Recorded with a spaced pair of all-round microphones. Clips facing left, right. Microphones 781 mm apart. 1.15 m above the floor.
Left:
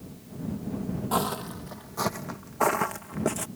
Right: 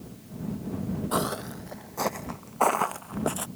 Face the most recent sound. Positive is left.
turn(degrees=55)  # may be behind; listen again after turning